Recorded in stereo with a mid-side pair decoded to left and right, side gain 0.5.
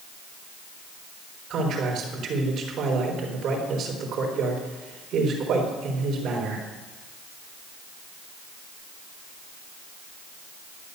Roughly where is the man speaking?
Ahead right.